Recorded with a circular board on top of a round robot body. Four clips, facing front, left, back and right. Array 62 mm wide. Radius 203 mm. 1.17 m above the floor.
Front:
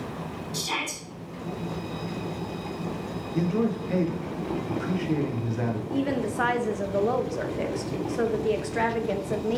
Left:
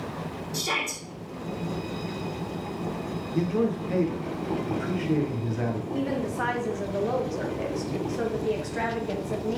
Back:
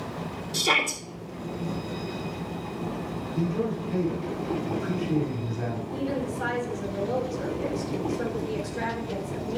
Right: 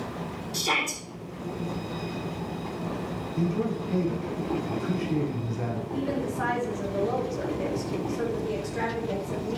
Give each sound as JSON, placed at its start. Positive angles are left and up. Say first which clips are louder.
{"t": 0.5, "sound": "a shout", "louder": "right 2 dB, back 8 dB", "azimuth_deg": -170, "distance_m": 2.5}
{"t": 3.3, "sound": "a man speaking", "louder": "left 3 dB, front 3 dB", "azimuth_deg": 35, "distance_m": 1.9}
{"t": 5.9, "sound": "a woman speaking", "louder": "left 1 dB, front 3 dB", "azimuth_deg": 10, "distance_m": 1.3}